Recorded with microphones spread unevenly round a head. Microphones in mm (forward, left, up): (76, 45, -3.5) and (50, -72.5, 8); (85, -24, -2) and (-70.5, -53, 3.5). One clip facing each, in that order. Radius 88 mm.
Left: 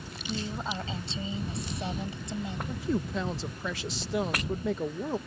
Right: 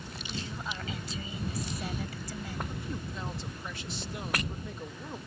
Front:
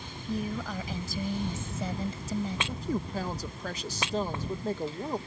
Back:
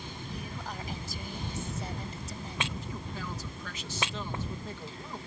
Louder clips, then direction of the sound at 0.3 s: Left 6 dB, front 10 dB; 20° left.